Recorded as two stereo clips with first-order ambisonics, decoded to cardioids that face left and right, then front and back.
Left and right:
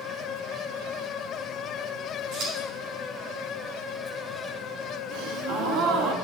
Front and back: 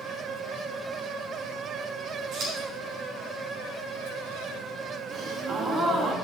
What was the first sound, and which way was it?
Scissors, 125° right.